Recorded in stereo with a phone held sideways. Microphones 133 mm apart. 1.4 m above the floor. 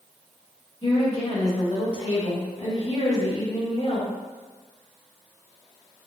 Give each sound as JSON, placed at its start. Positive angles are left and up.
{"t": 0.8, "sound": "a woman speaking", "side_deg": 50, "distance_m": 1.9}